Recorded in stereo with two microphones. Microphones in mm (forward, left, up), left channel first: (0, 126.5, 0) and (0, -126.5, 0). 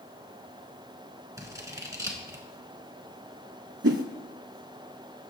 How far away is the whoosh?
About 0.6 m.